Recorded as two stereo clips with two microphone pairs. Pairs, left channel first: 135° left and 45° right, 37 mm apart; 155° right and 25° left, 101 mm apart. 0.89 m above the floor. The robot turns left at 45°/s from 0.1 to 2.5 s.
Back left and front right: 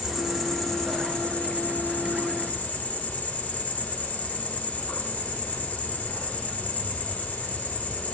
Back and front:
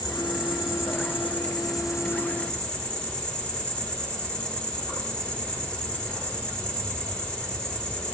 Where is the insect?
125° right, 1.5 m; by 8.2 s 125° left, 1.5 m.